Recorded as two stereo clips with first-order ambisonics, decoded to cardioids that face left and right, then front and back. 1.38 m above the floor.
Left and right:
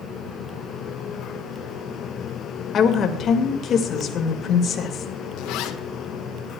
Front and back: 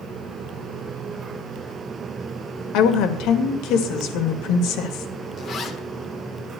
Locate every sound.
2.7 s a woman speaking: 30° left, 1.9 m
5.4 s a zipper: 60° left, 1.4 m